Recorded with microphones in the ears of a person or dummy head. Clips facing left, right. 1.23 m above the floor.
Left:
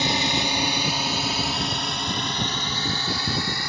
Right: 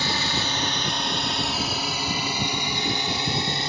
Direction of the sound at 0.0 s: 20° left (ahead or behind).